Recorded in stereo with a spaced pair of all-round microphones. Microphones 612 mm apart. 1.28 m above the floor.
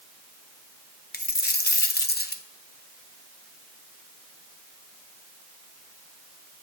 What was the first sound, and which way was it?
A dropped coin, 15° left (ahead or behind).